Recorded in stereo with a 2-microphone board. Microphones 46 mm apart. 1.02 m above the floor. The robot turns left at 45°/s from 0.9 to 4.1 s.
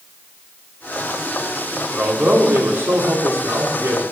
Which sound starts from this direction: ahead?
A man speaking, at 1.9 s.